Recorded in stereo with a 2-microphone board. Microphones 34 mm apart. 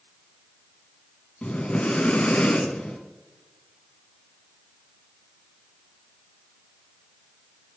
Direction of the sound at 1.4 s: 35° left (ahead or behind).